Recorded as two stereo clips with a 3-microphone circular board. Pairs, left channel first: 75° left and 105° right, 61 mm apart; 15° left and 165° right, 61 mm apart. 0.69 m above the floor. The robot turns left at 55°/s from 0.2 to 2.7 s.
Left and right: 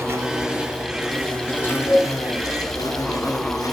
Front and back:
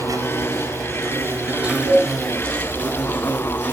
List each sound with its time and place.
0.0 s an insect: 145° right, 4 m; by 3.7 s 75° left, 4 m
1.9 s a cowbell: 160° left, 9.5 m; by 2.1 s 150° left, 9.5 m